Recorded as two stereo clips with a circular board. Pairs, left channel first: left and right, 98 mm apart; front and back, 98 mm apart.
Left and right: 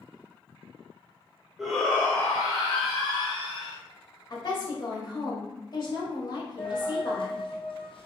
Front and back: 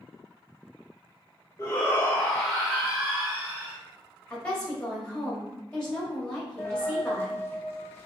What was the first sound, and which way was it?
A shout, 10° right.